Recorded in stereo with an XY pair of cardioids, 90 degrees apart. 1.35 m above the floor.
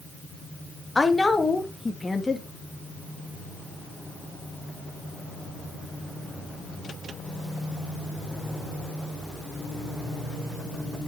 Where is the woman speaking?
20° left, 1.9 m.